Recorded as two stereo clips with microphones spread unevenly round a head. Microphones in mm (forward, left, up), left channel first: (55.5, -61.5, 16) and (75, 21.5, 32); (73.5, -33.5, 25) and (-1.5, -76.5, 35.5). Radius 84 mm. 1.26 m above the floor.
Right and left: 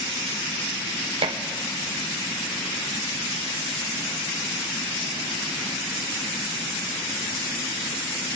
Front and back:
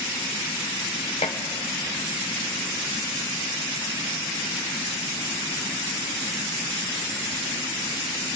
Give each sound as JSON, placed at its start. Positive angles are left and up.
{"t": 1.2, "sound": "dishes clattering", "azimuth_deg": 80, "distance_m": 0.8}